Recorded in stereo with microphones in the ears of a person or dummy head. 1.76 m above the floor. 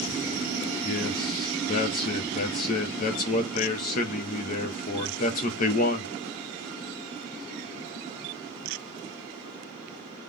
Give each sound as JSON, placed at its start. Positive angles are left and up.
{"t": 0.8, "sound": "a man speaking", "side_deg": 40, "distance_m": 0.9}